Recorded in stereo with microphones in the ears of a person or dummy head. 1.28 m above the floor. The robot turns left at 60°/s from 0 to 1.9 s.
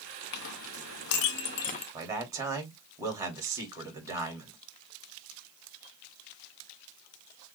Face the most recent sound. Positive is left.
turn(degrees=-15)  # may be behind; listen again after turning